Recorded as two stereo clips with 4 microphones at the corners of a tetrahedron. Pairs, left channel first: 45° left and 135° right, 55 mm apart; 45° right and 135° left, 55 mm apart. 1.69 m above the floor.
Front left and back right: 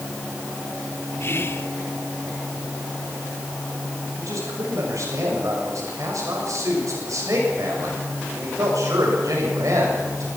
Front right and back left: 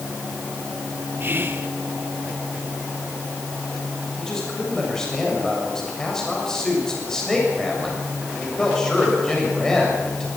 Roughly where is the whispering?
Left.